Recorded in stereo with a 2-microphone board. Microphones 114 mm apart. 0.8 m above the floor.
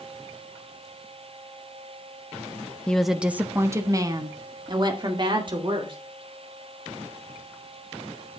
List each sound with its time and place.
2.9 s a woman speaking: 10° left (ahead or behind), 0.8 m; by 6.0 s 45° right (ahead or behind), 3 m